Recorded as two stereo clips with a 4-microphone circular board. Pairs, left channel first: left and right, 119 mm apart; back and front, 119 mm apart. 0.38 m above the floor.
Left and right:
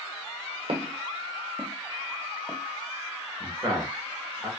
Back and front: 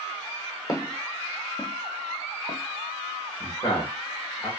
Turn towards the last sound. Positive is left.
turn(degrees=-135)